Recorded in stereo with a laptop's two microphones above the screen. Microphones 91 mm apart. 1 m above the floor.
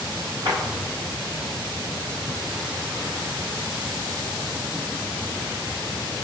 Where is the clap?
65° right (ahead or behind), 3 m.